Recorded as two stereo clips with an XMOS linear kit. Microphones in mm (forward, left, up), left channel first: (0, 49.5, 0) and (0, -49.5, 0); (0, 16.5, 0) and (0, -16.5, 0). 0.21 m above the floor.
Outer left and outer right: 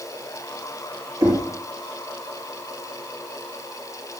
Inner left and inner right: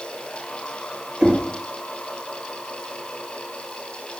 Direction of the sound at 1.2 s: 45° right (ahead or behind).